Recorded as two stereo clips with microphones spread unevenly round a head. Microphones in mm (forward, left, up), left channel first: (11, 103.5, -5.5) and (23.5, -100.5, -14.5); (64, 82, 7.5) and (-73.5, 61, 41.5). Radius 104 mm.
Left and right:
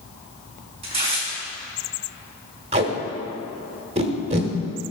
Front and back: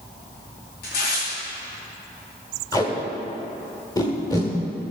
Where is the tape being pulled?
65° right, 1.3 m.